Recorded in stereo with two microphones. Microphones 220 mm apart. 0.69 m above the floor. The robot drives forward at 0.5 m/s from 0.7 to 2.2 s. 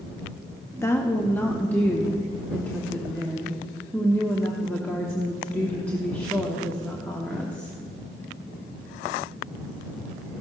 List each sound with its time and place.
0.8 s a woman speaking: 10° left (ahead or behind), 0.6 m; by 7.8 s 5° left (ahead or behind), 1.1 m